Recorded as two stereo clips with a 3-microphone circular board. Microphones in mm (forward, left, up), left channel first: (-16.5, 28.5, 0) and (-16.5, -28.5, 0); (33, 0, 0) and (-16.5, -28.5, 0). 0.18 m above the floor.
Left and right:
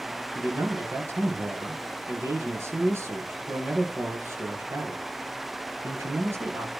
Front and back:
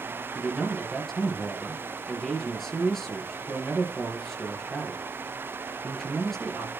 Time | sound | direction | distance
0.3 | a man speaking | 55° right | 4 m